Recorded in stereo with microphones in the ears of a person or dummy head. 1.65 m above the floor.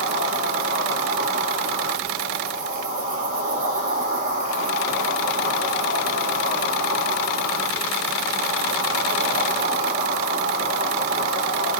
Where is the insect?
45° right (ahead or behind), 1.1 m.